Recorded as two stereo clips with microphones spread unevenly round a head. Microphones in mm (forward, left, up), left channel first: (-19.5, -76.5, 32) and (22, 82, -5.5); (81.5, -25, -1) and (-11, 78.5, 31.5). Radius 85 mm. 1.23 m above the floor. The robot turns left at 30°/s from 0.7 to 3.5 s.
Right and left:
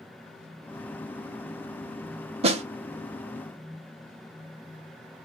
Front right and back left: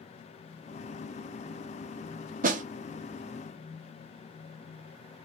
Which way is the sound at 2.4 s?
110° left.